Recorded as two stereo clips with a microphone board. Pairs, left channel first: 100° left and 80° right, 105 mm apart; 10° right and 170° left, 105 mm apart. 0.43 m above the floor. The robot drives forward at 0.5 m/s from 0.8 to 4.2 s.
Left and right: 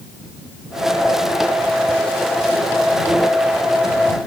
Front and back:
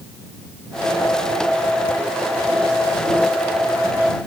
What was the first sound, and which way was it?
Only background noise.